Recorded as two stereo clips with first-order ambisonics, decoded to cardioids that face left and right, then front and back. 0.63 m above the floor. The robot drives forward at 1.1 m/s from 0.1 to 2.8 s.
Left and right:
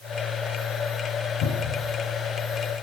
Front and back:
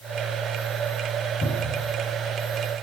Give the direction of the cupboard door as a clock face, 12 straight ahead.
10 o'clock.